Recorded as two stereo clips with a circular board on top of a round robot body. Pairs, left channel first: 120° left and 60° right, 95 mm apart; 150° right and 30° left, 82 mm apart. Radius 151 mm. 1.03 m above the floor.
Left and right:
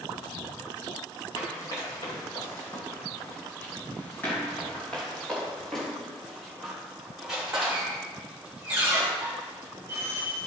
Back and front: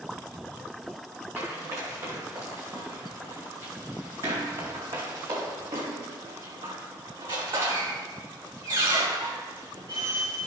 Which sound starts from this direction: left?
Running footsteps, at 1.4 s.